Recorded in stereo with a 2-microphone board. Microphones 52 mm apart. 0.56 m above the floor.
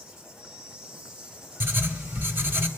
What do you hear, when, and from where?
0.0 s an insect: 15° right (ahead or behind), 1.1 m
1.6 s writing: 45° right (ahead or behind), 0.9 m